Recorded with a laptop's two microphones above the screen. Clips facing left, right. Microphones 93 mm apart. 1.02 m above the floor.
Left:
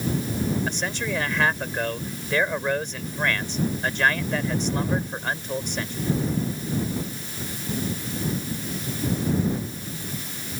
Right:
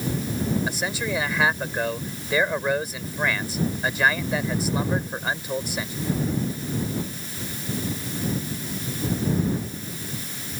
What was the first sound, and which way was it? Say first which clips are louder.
A man speaking: right 1 dB; 5° right (ahead or behind).